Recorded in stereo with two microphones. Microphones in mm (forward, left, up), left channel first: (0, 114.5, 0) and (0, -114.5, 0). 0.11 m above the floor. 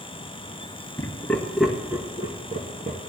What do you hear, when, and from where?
1.0 s laughter: 15° left (ahead or behind), 1.7 m; by 3.0 s 35° right (ahead or behind), 1.9 m